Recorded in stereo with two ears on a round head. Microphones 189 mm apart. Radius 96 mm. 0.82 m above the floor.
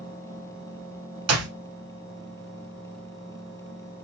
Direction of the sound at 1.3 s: 80° right.